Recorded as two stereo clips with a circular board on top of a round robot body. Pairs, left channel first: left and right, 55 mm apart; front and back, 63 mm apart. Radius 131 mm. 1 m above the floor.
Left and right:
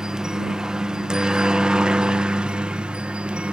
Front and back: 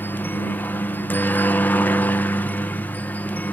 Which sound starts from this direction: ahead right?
A helicopter, at 0.0 s.